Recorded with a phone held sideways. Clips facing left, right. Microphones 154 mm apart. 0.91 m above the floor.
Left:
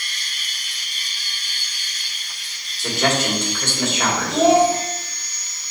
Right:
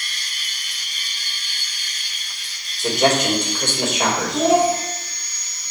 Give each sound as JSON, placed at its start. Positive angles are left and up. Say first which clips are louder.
{"t": 2.8, "sound": "a man speaking", "louder": "right 3 dB", "side_deg": -20, "distance_m": 1.9}
{"t": 4.3, "sound": "a child speaking", "louder": "left 3 dB", "side_deg": 90, "distance_m": 2.0}